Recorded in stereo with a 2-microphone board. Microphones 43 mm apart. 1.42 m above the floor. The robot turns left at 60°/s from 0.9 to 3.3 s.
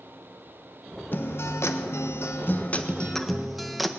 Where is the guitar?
130° left, 1.3 m; by 3.9 s straight ahead, 1.3 m.